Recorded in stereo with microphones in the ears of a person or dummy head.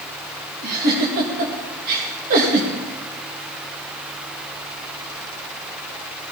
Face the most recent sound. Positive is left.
turn(degrees=-55)  # may be behind; listen again after turning